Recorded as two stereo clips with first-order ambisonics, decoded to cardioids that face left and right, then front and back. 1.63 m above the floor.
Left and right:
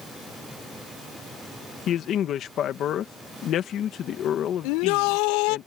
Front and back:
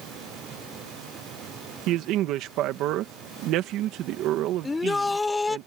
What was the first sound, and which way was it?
A man speaking, 145° left.